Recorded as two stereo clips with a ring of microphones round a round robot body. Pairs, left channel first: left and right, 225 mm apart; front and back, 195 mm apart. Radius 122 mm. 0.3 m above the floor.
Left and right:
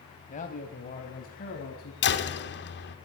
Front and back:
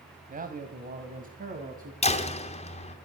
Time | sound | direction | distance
0.3 | a man speaking | 140° left | 2 m
2.0 | a door slam | 55° left | 2.5 m